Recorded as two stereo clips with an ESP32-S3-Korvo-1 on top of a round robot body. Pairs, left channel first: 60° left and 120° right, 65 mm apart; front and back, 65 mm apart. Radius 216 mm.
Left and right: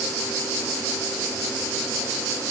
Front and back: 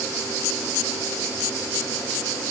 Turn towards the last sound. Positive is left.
No sound to turn to.